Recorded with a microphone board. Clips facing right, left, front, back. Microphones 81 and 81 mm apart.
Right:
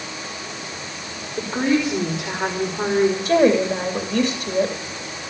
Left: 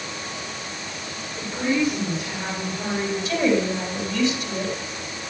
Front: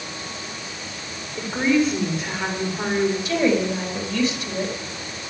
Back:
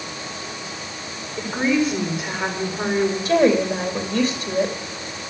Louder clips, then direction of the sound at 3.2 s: Right 3 dB, back 4 dB; 130° right.